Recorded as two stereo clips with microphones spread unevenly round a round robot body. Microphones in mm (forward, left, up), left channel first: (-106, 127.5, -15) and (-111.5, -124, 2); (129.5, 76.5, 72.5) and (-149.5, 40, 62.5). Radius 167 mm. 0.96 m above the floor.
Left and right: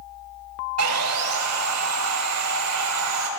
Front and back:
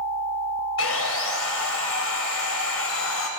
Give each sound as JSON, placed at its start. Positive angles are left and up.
{"t": 0.8, "sound": "sawing", "azimuth_deg": -45, "distance_m": 3.0}